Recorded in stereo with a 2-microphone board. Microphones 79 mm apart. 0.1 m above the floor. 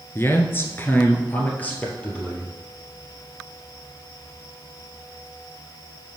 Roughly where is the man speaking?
Left.